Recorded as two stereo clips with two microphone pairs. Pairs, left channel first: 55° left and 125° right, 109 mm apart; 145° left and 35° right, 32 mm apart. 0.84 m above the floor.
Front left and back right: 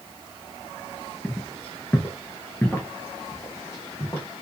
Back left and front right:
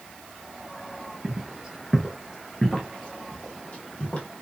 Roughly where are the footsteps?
Ahead right.